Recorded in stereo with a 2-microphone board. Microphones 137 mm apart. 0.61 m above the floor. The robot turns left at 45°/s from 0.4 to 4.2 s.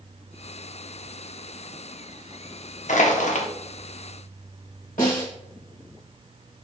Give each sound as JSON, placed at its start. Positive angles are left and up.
{"t": 2.9, "sound": "crushing", "side_deg": 70, "distance_m": 0.5}
{"t": 5.0, "sound": "a snare drum", "side_deg": 75, "distance_m": 1.1}